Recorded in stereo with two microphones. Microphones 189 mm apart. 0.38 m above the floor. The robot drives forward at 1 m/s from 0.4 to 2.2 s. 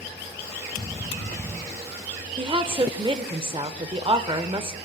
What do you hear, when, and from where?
2.4 s a woman speaking: 25° right (ahead or behind), 0.8 m